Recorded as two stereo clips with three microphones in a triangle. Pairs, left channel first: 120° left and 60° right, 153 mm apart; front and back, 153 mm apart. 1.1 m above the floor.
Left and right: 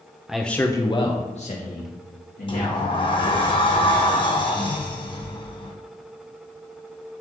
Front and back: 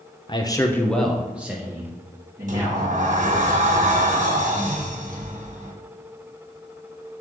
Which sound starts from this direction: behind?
A sliding door, at 2.5 s.